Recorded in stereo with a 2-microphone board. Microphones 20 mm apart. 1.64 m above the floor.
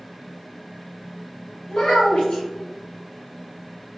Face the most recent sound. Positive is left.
turn(degrees=55)  # may be behind; listen again after turning